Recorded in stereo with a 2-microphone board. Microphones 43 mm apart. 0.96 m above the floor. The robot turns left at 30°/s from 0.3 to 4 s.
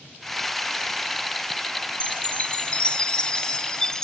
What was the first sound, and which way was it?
A chime, 25° left (ahead or behind).